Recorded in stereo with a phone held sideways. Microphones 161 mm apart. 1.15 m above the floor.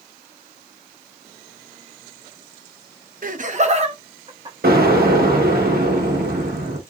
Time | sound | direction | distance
3.2 | laughter | 55° right (ahead or behind) | 0.6 m
4.6 | an explosion | 65° right (ahead or behind) | 1.1 m